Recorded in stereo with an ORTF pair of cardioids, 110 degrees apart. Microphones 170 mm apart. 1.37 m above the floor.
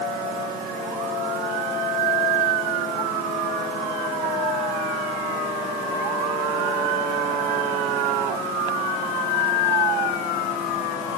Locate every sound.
Only background noise.